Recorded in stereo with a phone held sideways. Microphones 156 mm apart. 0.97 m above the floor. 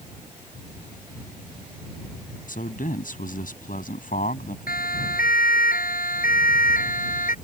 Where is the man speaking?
65° left (ahead or behind).